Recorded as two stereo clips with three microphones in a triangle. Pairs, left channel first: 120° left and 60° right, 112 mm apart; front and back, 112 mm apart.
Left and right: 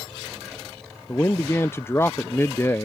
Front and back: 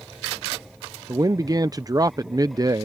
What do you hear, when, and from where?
1.1 s a man speaking: 170° left